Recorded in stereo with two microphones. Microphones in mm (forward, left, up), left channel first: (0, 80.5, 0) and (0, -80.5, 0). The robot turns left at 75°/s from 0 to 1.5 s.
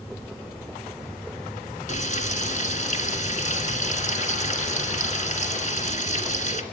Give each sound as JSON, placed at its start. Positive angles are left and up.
{"t": 1.9, "sound": "frying", "side_deg": 50, "distance_m": 2.0}